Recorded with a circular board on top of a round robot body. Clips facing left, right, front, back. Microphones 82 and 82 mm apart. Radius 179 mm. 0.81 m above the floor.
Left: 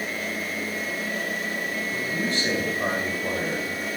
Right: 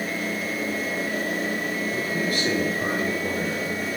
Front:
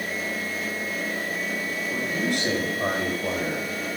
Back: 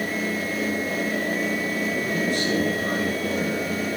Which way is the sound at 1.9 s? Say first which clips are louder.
Even, front 1 dB; 25° left.